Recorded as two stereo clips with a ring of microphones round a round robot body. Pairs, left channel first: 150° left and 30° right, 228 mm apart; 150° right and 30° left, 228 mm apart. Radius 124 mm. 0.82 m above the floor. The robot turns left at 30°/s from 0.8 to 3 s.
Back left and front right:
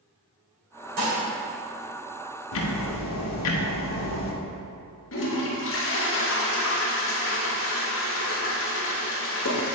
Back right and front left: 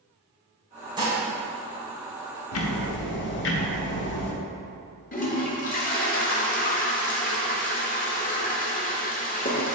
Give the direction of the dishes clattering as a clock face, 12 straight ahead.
1 o'clock.